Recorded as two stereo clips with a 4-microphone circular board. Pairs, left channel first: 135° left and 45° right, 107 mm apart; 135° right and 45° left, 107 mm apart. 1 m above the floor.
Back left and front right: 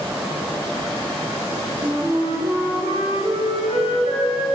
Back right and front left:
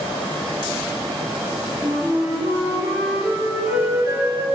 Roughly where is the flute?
Ahead.